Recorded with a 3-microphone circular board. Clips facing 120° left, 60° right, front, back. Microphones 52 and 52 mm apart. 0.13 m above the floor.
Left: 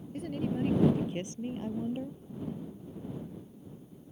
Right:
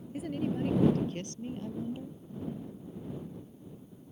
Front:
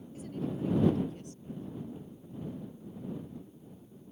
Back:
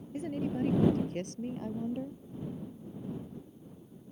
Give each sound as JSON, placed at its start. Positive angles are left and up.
{"t": 0.1, "sound": "a woman speaking", "azimuth_deg": -145}